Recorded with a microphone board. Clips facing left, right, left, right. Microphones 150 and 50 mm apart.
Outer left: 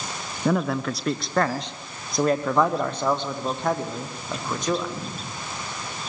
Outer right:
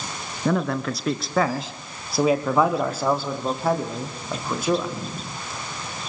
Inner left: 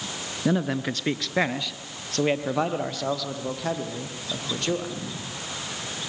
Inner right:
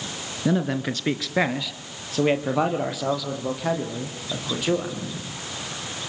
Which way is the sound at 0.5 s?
5° left (ahead or behind).